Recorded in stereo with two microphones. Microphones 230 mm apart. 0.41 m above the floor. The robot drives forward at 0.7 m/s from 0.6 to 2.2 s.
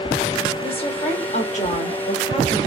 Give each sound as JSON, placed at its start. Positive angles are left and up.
{"t": 0.6, "sound": "a woman speaking", "side_deg": 20, "distance_m": 1.2}